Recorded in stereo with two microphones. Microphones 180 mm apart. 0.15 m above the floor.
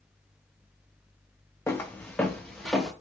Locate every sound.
1.7 s footsteps: 15° left (ahead or behind), 0.6 m; by 2.9 s centre (ahead or behind), 1.3 m